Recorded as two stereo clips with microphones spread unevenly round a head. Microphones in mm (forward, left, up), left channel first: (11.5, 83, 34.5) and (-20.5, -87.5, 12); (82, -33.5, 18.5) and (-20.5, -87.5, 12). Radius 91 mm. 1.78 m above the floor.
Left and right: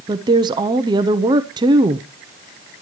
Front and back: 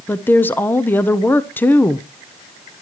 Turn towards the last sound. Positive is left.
turn(degrees=-35)